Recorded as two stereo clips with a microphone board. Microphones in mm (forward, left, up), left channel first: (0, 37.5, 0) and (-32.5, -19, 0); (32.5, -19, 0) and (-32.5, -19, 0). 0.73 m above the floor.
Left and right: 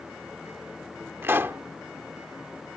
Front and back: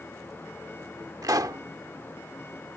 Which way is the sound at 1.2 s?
170° right.